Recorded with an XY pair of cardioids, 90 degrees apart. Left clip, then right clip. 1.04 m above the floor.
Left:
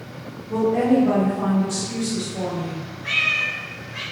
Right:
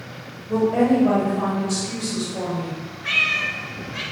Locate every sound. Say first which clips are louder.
0.5 s a woman speaking: even; 65° right, 1.6 m
3.0 s a cat meowing: even; 45° right, 1.6 m